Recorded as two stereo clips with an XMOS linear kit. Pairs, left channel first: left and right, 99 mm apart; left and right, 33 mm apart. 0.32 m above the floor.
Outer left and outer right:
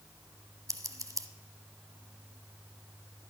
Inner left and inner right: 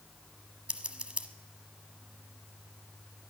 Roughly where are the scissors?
Right.